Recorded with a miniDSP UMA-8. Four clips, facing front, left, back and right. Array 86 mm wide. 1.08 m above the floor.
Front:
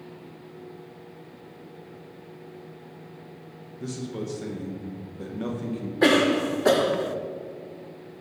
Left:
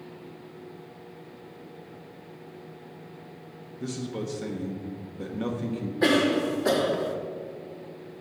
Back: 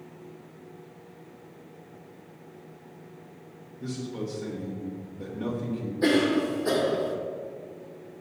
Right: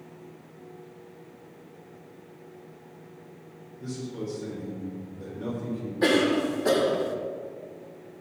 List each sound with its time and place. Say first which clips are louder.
3.8 s a man speaking: left 2 dB, front 1 dB; 65° left, 1.2 m
6.0 s a cough: even, front 3 dB; straight ahead, 0.8 m